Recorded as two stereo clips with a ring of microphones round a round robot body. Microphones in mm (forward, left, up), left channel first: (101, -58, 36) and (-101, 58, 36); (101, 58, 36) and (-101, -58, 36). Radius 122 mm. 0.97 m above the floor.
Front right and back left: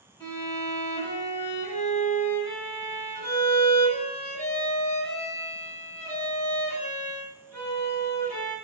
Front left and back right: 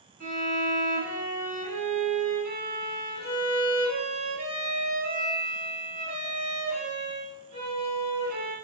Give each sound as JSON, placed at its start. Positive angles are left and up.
{"t": 0.2, "sound": "a violin", "azimuth_deg": -105, "distance_m": 1.1}